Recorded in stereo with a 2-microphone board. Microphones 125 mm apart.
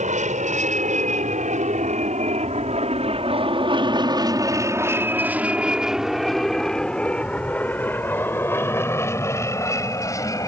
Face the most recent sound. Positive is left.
turn(degrees=25)  # may be behind; listen again after turning